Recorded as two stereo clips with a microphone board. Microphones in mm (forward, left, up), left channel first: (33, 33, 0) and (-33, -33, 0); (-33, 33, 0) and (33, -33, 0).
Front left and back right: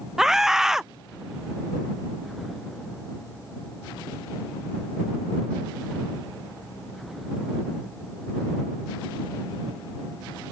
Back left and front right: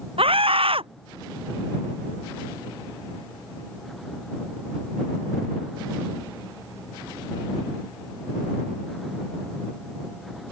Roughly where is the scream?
Ahead right.